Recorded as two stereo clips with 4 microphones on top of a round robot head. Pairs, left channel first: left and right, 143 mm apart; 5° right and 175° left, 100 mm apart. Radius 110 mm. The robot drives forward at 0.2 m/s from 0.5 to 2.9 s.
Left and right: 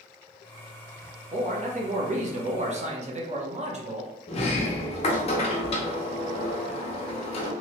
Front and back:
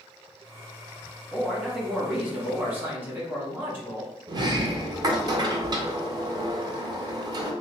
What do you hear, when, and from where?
1.3 s a man speaking: 95° right, 1.0 m; by 4.1 s 115° right, 1.1 m
4.3 s a sliding door: 135° left, 0.6 m